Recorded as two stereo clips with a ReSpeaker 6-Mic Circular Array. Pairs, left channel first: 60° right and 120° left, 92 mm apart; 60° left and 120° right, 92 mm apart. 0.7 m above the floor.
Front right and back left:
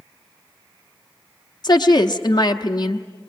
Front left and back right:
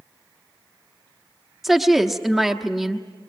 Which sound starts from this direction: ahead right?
A woman speaking, at 1.6 s.